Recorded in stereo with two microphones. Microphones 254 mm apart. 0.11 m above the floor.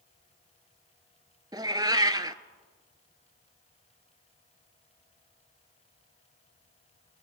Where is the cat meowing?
15° right (ahead or behind), 0.5 m.